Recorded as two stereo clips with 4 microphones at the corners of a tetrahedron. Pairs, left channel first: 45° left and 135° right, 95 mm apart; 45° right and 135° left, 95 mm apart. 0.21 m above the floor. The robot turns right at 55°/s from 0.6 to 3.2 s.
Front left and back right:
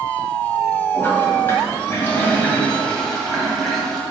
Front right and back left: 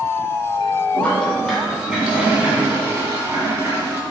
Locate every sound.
0.9 s a toilet flushing: 10° left, 1.6 m; by 4.0 s 130° left, 1.6 m